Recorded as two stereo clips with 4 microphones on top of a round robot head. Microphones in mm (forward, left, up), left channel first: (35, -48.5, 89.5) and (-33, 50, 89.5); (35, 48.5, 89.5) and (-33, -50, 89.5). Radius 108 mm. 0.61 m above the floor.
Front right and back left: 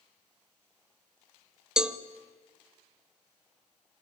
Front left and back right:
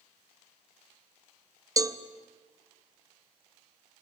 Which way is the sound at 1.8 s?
155° right.